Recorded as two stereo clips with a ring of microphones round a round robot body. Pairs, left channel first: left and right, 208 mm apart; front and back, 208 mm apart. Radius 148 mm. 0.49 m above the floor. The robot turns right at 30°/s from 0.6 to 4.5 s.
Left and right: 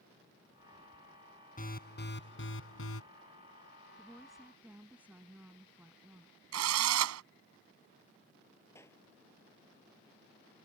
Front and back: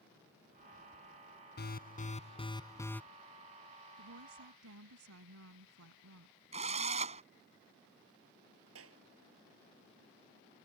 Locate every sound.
1.6 s an alarm: 40° left; by 3.0 s 85° left
4.0 s a woman speaking: 170° left; by 6.3 s 175° right
6.5 s a drill: 110° right
8.8 s a clap: 170° left